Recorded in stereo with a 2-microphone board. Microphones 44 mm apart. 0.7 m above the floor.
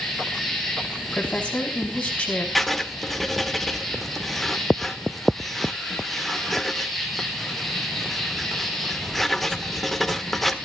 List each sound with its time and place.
0.0 s an insect: 5° left (ahead or behind), 4.5 m
1.1 s a woman speaking: 30° left (ahead or behind), 6.5 m
2.5 s writing: centre (ahead or behind), 1.4 m